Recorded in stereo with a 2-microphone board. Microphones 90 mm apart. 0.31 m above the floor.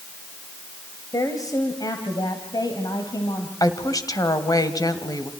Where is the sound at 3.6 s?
45° left (ahead or behind), 2.0 m.